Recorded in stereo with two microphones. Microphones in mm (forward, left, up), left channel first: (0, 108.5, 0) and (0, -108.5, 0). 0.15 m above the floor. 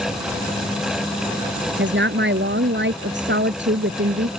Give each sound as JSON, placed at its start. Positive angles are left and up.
{"t": 1.8, "sound": "a woman speaking", "side_deg": -60}